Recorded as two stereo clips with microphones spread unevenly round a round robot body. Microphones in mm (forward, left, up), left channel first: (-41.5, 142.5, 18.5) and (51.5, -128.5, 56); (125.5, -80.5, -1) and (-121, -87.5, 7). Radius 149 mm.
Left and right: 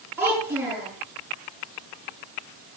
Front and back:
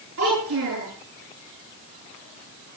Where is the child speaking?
155° right, 9.5 m.